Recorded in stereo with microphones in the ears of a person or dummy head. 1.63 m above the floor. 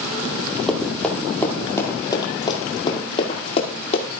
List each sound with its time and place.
0.7 s running footsteps: 5° left (ahead or behind), 2.5 m; by 4.0 s 45° left (ahead or behind), 2.5 m